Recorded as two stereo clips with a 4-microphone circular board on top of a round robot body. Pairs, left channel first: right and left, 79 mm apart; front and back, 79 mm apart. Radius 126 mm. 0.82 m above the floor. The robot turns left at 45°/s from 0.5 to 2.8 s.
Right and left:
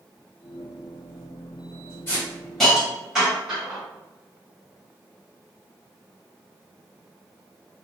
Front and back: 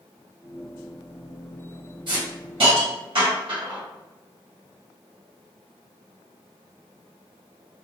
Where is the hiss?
155° right, 1.5 m; by 3.8 s 175° left, 1.5 m.